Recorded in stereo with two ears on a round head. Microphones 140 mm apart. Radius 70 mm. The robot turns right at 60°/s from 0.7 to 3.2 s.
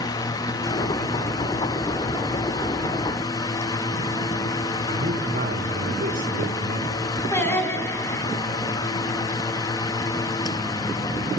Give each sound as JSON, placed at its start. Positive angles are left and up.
{"t": 4.9, "sound": "a man speaking", "side_deg": -60, "distance_m": 4.0}
{"t": 7.3, "sound": "singing", "side_deg": 15, "distance_m": 6.0}